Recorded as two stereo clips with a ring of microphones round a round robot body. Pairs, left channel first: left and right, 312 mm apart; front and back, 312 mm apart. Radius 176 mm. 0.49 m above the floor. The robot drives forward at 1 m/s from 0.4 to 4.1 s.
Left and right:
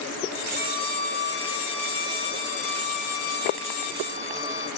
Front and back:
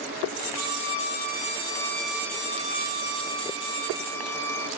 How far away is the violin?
About 2 m.